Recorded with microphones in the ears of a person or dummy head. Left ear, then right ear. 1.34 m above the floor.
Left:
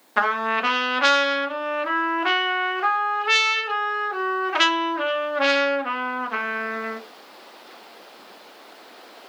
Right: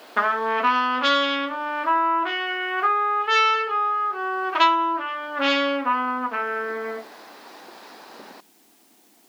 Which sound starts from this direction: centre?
A trumpet, at 0.2 s.